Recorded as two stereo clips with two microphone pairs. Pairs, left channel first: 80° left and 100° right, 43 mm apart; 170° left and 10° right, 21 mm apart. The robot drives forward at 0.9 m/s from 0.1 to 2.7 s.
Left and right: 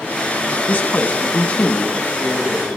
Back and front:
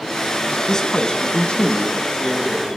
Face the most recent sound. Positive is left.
turn(degrees=150)